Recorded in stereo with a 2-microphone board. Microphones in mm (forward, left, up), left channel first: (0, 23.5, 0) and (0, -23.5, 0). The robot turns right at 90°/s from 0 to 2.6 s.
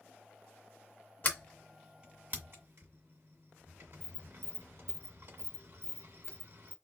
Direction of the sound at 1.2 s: 40° left (ahead or behind).